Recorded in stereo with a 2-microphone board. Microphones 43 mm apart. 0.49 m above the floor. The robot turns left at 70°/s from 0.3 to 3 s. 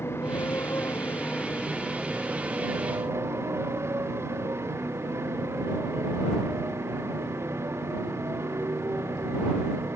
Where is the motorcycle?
105° left; by 10.0 s 80° right.